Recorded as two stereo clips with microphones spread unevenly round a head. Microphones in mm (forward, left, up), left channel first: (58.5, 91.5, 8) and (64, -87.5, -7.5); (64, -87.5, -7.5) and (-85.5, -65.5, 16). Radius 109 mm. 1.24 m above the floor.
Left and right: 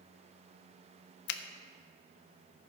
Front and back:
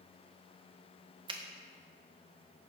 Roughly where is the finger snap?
Left.